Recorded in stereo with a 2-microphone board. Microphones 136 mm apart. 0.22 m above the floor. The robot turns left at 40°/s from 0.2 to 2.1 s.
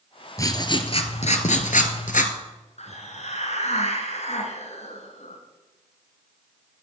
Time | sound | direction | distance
0.4 | writing | 155° left | 1.0 m
2.8 | a hiss | 60° left (ahead or behind) | 1.6 m